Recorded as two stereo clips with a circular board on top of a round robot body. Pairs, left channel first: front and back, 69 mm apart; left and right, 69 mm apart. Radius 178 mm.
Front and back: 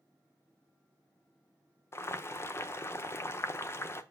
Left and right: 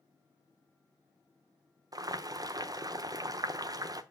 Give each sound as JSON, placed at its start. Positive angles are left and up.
{"t": 1.9, "sound": "boiling", "azimuth_deg": -55, "distance_m": 0.9}